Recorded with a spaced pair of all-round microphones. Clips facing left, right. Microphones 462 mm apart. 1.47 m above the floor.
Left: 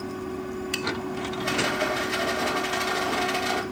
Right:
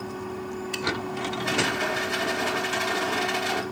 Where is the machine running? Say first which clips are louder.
Left 2 dB; 40° left (ahead or behind), 3.5 m.